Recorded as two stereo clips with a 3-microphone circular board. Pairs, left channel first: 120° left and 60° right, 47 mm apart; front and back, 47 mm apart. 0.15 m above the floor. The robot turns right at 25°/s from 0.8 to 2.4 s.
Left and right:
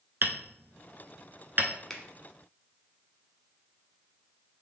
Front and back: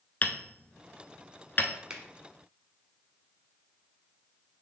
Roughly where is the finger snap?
Behind.